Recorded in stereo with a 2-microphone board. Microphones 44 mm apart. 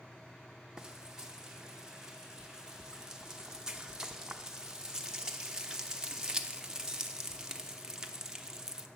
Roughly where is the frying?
Centre.